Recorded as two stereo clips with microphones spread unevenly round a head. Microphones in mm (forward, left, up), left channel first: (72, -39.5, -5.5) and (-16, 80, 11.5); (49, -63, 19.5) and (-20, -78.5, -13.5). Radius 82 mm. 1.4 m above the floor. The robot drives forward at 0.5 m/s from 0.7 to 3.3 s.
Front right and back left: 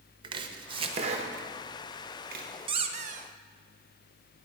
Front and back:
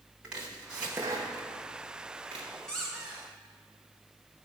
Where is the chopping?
90° left, 0.8 m; by 2.5 s 145° left, 1.2 m.